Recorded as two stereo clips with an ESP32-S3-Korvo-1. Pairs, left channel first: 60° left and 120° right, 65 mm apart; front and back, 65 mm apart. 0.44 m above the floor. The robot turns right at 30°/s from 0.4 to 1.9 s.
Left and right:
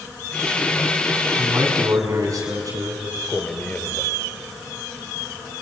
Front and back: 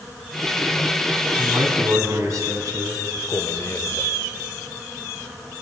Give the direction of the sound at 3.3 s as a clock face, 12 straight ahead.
12 o'clock.